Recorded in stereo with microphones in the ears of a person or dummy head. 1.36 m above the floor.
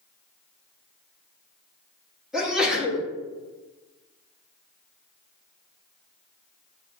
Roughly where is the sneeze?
Centre.